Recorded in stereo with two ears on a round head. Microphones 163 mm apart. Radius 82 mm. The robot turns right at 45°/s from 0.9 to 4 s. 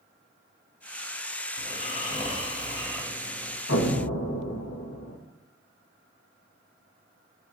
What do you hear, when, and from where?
1.6 s snoring: 105° left, 1.2 m; by 3.6 s 165° right, 1.2 m
3.7 s an explosion: 70° left (ahead or behind), 1.1 m